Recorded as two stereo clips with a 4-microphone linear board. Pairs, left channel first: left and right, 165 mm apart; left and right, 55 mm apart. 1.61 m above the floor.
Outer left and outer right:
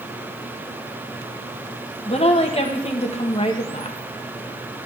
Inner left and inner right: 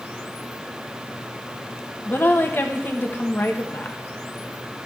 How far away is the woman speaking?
About 1.4 m.